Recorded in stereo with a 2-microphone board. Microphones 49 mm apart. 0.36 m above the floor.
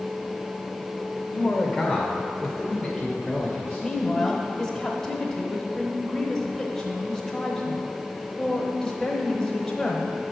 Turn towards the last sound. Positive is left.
turn(degrees=10)  # may be behind; listen again after turning